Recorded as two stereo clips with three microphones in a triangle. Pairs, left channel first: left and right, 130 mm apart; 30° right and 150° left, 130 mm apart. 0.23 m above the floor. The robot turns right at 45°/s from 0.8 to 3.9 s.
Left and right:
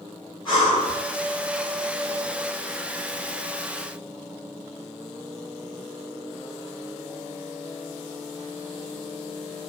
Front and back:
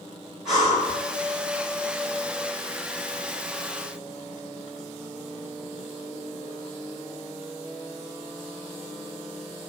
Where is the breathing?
65° left, 1.9 m; by 1.0 s 75° left, 1.9 m.